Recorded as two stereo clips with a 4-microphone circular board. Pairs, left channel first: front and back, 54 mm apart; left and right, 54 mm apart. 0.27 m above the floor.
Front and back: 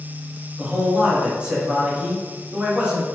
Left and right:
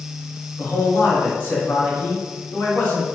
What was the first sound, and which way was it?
A man speaking, 130° left.